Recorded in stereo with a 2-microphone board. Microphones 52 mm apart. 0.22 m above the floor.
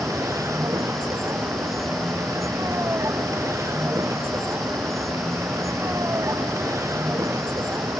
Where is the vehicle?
75° right (ahead or behind).